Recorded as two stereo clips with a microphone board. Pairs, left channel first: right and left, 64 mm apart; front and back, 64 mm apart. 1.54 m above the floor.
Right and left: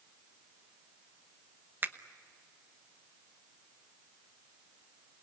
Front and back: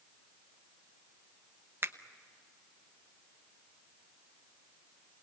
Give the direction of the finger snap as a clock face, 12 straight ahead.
7 o'clock.